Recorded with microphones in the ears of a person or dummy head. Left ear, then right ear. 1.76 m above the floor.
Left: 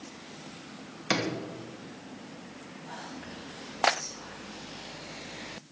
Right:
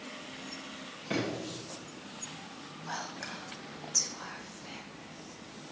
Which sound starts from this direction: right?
Whispering, at 2.9 s.